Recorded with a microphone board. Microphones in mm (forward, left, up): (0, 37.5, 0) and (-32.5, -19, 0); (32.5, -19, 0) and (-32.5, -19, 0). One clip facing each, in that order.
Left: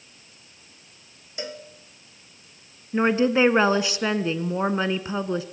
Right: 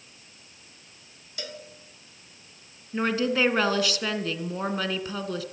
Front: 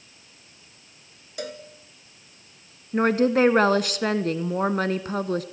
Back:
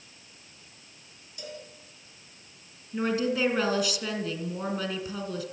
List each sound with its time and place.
1.4 s a cowbell: 5° right, 1.8 m
2.9 s a woman speaking: straight ahead, 1.4 m